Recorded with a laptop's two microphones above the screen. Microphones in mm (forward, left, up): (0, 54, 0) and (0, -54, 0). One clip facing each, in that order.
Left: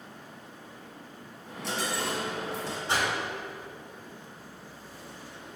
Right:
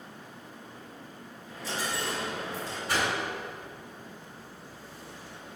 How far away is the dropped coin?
About 2.5 m.